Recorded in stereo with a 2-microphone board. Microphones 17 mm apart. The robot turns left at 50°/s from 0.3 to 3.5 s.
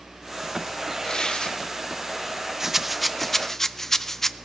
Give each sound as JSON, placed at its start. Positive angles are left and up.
{"t": 1.0, "sound": "tearing paper", "side_deg": 40, "distance_m": 1.7}
{"t": 2.6, "sound": "a rattle", "side_deg": -25, "distance_m": 0.6}